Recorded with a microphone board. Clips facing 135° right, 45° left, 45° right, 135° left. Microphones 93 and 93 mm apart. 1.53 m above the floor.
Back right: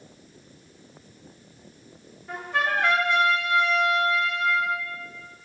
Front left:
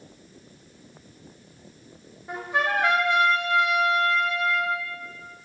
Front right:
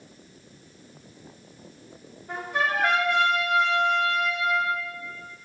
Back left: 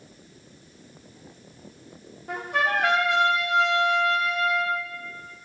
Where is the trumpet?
115° left, 0.6 m.